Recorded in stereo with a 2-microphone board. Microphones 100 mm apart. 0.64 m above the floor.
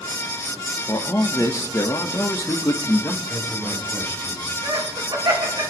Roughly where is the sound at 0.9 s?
Left.